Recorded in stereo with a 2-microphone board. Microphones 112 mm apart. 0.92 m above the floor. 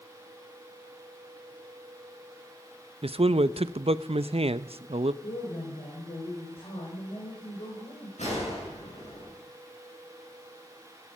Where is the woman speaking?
55° left (ahead or behind), 5 m.